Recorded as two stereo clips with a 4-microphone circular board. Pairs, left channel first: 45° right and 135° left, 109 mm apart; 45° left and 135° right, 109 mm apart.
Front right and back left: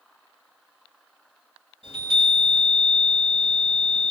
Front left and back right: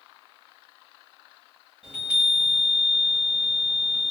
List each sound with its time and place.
1.8 s a chime: 55° right, 2.5 m